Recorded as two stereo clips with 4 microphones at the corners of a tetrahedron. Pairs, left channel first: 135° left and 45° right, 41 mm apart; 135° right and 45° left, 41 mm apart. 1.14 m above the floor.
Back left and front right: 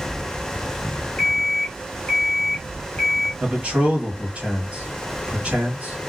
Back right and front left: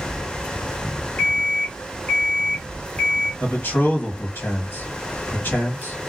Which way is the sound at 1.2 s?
Straight behind.